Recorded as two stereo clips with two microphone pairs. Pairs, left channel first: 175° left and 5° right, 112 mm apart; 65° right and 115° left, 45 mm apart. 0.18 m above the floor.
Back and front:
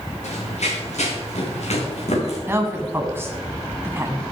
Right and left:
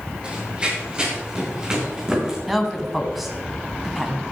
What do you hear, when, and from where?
0.2 s running footsteps: straight behind, 6 m; by 2.4 s 170° right, 5.5 m
2.5 s a woman speaking: 30° left, 1.5 m